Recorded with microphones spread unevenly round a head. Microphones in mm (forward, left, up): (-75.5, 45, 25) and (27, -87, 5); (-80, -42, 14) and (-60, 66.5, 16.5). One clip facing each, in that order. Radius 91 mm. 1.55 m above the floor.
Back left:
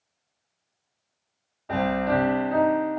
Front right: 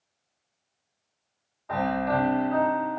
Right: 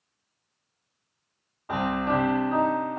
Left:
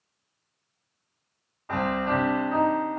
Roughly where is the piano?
Behind.